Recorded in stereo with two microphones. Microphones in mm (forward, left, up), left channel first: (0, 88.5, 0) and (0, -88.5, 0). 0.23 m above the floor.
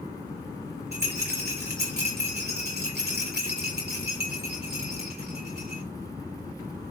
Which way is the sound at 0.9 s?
70° right (ahead or behind).